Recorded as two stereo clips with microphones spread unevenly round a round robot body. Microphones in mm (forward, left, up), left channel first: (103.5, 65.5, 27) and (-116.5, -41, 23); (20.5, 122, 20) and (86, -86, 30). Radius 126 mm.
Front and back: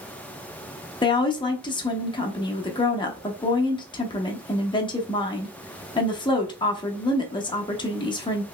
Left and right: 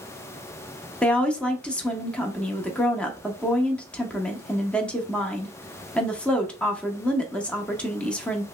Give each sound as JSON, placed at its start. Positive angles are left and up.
{"t": 1.0, "sound": "a woman speaking", "azimuth_deg": 40, "distance_m": 0.7}